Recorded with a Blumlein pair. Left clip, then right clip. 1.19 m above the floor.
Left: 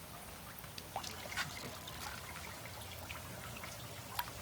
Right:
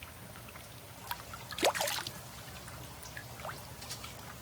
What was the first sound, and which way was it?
Only background noise.